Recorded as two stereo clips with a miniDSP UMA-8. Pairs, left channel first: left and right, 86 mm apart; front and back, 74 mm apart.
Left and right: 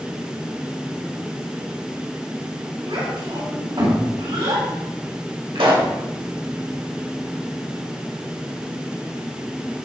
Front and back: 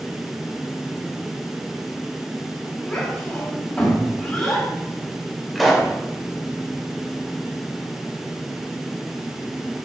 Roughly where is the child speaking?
Right.